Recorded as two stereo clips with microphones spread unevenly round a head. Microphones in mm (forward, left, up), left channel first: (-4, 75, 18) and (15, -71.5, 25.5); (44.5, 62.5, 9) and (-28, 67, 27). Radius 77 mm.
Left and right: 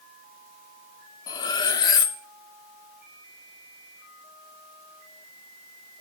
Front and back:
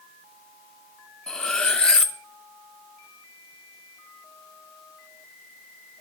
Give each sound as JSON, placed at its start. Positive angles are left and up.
{"t": 1.3, "sound": "cutlery clinking", "azimuth_deg": 105, "distance_m": 0.6}